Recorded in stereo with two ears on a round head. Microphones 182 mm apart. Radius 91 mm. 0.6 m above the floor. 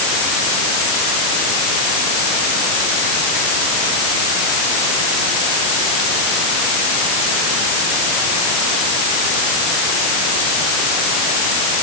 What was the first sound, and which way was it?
Only background noise.